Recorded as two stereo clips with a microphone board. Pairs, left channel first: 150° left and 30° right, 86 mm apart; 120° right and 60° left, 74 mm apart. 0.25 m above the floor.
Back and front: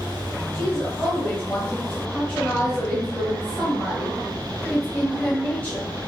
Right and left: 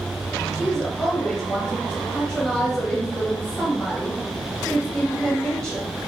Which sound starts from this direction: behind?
A woman speaking, at 0.5 s.